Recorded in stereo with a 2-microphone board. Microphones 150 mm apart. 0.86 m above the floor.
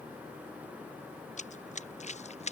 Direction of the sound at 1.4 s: 50° left (ahead or behind).